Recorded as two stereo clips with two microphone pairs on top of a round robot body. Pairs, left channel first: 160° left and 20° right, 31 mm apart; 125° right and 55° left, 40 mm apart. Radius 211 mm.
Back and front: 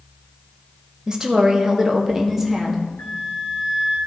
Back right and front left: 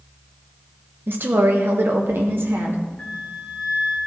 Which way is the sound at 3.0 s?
160° left.